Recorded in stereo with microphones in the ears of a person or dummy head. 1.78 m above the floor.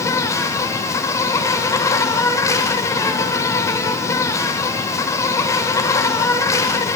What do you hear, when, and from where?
0.0 s an insect: 20° left (ahead or behind), 1.0 m